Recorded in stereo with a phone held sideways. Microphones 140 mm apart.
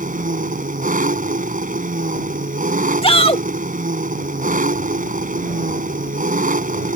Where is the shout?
45° left (ahead or behind).